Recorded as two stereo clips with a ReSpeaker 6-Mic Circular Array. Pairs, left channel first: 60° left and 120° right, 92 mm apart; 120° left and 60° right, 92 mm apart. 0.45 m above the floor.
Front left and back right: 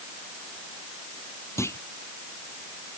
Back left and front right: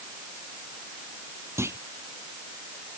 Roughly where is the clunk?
Ahead.